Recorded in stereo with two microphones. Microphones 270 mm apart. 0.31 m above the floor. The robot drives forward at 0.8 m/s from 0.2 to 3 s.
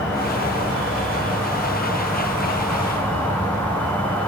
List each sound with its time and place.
0.0 s an insect: 5° left (ahead or behind), 5.5 m